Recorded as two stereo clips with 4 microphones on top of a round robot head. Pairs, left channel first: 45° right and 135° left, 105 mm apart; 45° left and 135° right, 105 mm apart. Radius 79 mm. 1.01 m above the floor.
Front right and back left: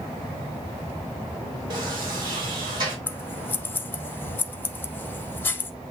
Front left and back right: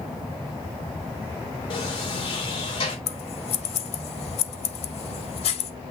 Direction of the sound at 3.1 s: 25° left.